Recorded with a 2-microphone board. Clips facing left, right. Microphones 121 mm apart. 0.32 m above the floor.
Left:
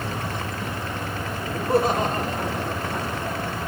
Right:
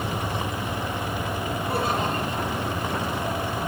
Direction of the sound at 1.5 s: 40° left (ahead or behind).